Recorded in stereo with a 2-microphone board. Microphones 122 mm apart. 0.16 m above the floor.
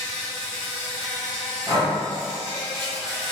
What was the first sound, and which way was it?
An insect, 5° left (ahead or behind).